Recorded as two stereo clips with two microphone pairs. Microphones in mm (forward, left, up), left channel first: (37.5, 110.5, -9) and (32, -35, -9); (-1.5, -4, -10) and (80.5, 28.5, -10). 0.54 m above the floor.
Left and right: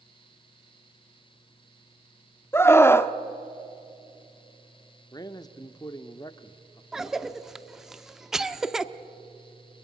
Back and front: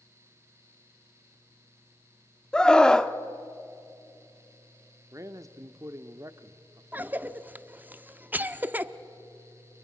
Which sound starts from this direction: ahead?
A cough, at 6.9 s.